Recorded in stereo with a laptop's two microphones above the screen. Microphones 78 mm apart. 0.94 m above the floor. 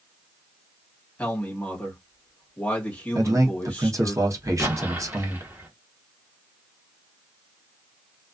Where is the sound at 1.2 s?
20° left (ahead or behind), 1.2 m.